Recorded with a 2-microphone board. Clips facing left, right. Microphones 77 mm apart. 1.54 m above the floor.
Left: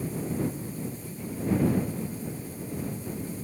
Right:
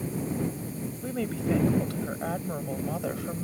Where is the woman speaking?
80° right; by 3.5 s 90° right.